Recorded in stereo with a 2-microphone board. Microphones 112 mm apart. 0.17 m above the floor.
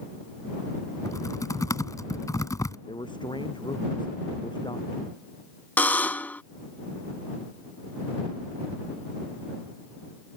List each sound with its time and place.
1.1 s typing on a keyboard: 30° left (ahead or behind)
2.9 s a man speaking: 45° left (ahead or behind)
5.8 s a buzzer: 15° left (ahead or behind)